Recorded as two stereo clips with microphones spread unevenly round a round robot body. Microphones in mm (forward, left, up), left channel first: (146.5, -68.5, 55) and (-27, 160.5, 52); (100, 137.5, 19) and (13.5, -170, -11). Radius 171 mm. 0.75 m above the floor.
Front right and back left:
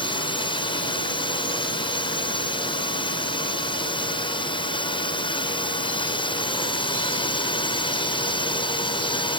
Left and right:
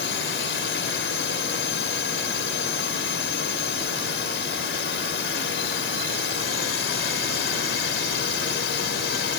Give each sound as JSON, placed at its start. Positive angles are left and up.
{"t": 0.0, "sound": "a drone", "azimuth_deg": 20}